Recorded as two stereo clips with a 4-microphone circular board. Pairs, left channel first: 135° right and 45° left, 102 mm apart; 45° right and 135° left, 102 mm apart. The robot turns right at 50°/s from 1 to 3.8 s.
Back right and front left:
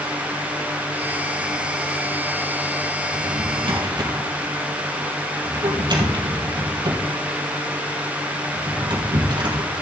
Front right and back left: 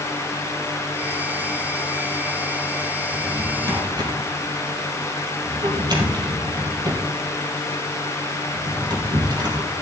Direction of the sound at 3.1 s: 55° left.